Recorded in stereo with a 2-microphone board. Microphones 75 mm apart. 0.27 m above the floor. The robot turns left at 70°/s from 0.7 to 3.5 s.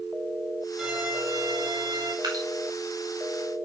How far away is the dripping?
About 5 m.